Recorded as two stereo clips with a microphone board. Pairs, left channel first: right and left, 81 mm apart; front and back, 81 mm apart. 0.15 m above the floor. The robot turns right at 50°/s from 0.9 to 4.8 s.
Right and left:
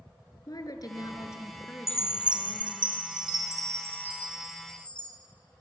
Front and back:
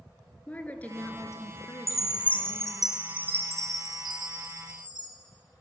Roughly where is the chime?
Ahead left.